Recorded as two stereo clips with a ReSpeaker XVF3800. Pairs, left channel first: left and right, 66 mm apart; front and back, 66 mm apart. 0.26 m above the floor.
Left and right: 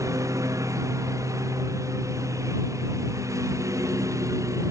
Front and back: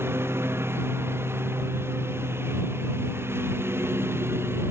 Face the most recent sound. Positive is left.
turn(degrees=-130)